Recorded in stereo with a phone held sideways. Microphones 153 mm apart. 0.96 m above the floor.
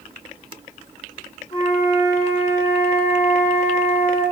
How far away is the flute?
About 1.4 m.